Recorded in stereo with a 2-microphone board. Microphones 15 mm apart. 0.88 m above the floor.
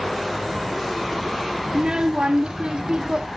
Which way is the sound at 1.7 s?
75° right (ahead or behind).